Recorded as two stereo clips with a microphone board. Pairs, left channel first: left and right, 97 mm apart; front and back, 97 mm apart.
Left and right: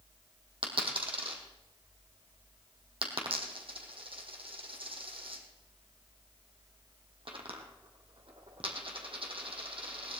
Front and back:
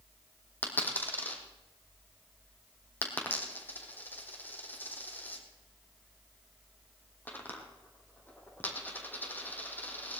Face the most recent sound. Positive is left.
turn(degrees=-70)